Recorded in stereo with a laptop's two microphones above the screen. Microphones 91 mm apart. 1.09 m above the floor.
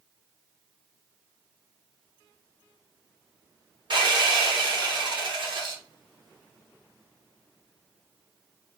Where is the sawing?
60° right (ahead or behind), 1.4 m.